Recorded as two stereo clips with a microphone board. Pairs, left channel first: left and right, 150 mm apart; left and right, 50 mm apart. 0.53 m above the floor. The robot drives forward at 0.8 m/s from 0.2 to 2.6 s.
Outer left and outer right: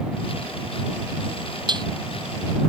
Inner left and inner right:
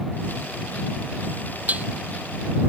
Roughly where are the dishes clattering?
Right.